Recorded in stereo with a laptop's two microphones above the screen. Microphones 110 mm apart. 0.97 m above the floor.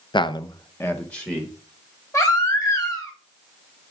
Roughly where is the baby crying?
Left.